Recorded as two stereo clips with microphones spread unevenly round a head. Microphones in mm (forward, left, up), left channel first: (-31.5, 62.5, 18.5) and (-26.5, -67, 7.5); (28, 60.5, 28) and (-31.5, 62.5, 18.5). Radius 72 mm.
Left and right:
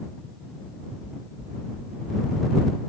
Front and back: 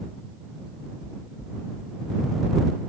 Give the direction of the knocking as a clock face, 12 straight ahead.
10 o'clock.